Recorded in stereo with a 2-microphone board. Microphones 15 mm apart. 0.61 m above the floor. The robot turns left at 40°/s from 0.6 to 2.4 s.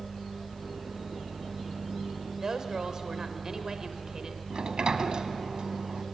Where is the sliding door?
55° right (ahead or behind), 1.1 m.